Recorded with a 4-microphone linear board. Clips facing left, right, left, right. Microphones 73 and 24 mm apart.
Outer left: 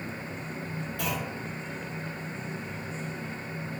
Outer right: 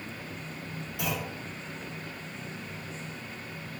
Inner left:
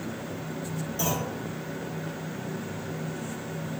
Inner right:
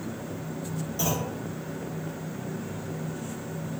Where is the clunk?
20° right (ahead or behind), 1.4 m.